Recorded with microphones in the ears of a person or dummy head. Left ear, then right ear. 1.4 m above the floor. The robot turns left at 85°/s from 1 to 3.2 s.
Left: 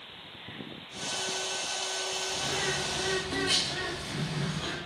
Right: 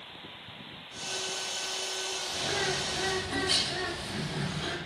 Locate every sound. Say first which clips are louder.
2.3 s a bird: right 2 dB; 140° right, 1.3 m; by 4.8 s 140° left, 1.3 m